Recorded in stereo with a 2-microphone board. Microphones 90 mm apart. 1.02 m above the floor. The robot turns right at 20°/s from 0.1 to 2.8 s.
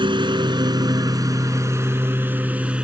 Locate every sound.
0.0 s a lawn mower: 65° right; by 2.8 s 15° right